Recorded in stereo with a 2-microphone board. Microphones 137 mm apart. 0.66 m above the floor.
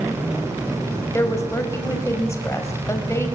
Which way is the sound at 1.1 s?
20° left (ahead or behind).